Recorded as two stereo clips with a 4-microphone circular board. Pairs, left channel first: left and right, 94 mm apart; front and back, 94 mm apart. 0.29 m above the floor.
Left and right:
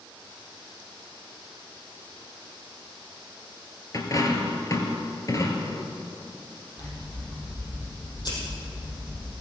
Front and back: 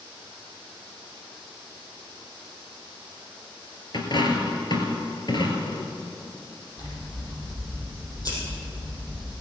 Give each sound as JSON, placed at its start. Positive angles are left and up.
{"t": 3.9, "sound": "a dropped coin", "azimuth_deg": 40, "distance_m": 2.0}
{"t": 6.8, "sound": "scissors", "azimuth_deg": 50, "distance_m": 5.5}